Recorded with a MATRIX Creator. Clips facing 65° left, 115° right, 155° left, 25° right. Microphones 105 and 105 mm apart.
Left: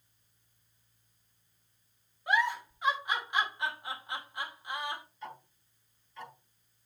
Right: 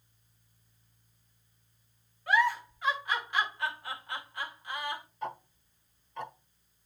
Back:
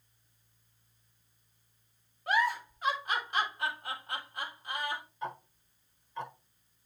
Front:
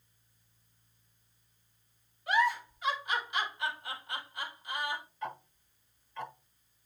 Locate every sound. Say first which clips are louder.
2.3 s a giggle: right 3 dB, front 1 dB; 135° left, 2.0 m
5.2 s ticking: right 7 dB, back 1 dB; 140° right, 1.2 m